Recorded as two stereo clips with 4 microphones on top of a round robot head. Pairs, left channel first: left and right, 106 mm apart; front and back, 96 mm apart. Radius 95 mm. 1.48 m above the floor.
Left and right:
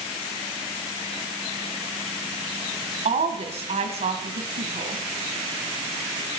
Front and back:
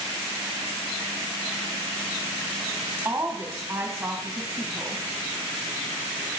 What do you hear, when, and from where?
3.0 s a woman speaking: 105° right, 2.0 m